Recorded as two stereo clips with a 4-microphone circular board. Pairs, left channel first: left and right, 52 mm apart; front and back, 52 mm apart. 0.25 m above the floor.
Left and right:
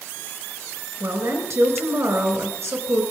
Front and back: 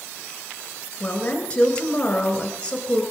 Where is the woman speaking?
70° right, 3 m.